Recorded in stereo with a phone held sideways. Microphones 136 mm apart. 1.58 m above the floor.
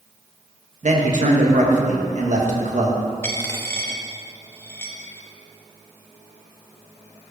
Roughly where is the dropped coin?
Centre.